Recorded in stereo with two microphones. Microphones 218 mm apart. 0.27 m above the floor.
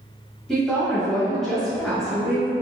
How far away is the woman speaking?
About 1.2 m.